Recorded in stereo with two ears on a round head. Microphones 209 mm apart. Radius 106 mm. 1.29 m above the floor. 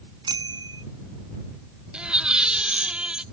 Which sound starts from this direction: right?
A bicycle bell, at 0.2 s.